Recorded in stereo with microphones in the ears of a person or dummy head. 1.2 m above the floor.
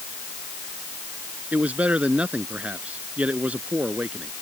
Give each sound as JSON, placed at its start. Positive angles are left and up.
{"t": 1.5, "sound": "a man speaking", "side_deg": -10}